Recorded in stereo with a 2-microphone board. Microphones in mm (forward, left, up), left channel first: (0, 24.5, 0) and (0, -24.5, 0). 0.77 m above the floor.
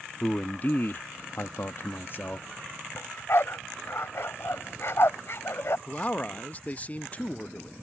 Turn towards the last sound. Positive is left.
turn(degrees=35)  # may be behind; listen again after turning